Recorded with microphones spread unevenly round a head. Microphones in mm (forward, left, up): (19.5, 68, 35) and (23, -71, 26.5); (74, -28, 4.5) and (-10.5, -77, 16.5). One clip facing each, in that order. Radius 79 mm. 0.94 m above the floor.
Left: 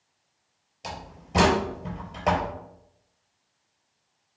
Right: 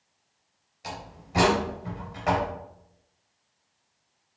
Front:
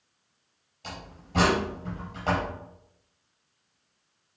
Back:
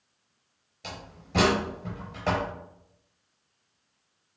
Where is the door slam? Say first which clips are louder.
Left 1 dB, even; 155° left, 4 m.